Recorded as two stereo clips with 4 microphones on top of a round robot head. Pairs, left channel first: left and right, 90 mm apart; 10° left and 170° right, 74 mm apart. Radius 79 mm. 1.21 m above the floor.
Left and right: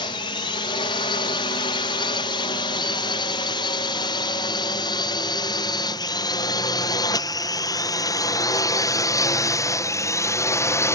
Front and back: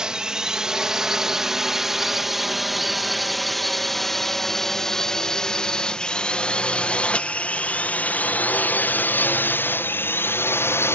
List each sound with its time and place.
0.0 s a drone: 110° left; by 10.9 s 45° left